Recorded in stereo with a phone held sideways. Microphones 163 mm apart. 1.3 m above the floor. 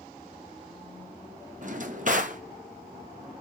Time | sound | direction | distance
1.6 | a drawer | 50° right (ahead or behind) | 0.8 m